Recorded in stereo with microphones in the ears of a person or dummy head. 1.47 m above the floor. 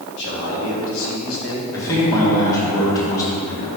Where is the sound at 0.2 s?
60° left (ahead or behind), 2.5 m; by 1.6 s 85° left, 1.6 m.